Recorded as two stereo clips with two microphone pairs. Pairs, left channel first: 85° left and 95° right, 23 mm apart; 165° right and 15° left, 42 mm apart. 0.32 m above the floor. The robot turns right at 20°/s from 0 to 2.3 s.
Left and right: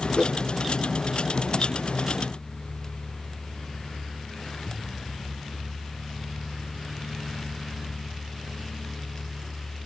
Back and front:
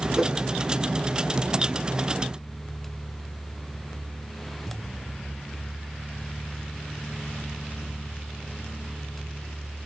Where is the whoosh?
95° left, 1.0 m; by 0.3 s 100° left, 1.0 m.